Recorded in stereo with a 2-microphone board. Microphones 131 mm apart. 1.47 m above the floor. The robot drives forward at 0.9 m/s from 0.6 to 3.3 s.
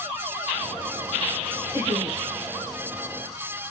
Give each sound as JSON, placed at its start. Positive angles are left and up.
{"t": 1.7, "sound": "laughter", "side_deg": -20, "distance_m": 1.8}